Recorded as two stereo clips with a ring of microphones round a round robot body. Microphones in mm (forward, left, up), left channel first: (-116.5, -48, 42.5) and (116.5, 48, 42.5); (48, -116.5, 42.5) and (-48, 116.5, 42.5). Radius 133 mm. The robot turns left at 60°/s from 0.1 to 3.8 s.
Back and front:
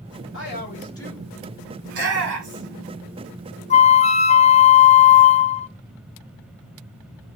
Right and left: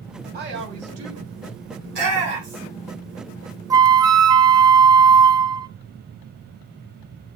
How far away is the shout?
About 4.5 m.